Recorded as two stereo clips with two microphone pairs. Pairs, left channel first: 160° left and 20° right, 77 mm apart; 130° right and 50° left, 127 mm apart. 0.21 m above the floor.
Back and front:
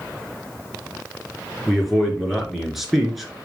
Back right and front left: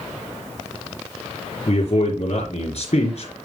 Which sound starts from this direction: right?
A man speaking, at 1.7 s.